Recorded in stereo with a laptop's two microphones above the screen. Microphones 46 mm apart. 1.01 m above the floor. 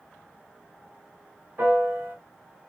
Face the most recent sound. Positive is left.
turn(degrees=-50)  # may be behind; listen again after turning